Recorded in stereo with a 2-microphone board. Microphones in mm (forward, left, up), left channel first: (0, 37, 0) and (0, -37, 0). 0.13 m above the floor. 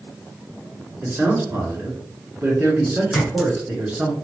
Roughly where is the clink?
Centre.